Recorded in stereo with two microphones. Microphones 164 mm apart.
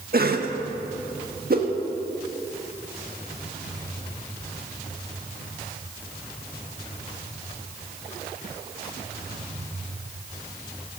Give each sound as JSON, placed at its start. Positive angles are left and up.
{"t": 0.1, "sound": "a cough", "side_deg": -65, "distance_m": 1.6}
{"t": 1.5, "sound": "a whoosh", "side_deg": -60, "distance_m": 1.7}